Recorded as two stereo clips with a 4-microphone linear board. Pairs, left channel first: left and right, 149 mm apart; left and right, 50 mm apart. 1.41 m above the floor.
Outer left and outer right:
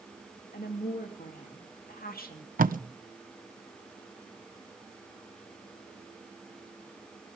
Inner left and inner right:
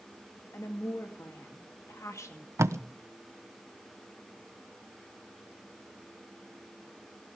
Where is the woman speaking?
80° left, 2.5 m.